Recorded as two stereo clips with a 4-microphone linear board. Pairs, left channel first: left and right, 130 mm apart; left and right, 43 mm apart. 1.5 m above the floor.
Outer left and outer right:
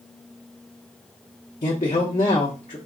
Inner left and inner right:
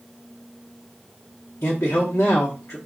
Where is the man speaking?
75° left (ahead or behind), 0.9 m.